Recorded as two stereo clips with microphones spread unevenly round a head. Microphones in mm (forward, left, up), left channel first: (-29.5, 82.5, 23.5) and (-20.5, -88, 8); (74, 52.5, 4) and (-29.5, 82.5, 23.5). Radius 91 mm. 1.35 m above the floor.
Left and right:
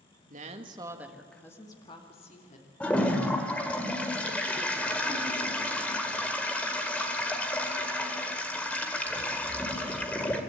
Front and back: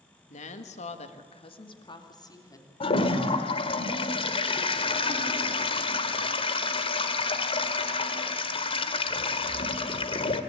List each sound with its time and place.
0.3 s a woman speaking: 40° right, 1.9 m; by 2.7 s 40° left, 3.5 m
2.8 s a toilet flushing: 15° left, 1.8 m